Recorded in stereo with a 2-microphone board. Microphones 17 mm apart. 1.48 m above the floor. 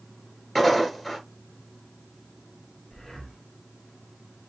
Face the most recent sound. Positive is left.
turn(degrees=55)  # may be behind; listen again after turning